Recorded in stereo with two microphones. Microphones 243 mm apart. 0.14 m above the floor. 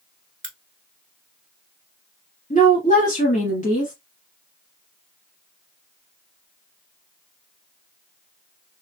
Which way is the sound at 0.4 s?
55° right (ahead or behind).